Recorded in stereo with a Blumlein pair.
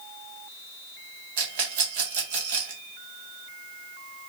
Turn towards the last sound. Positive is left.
turn(degrees=-50)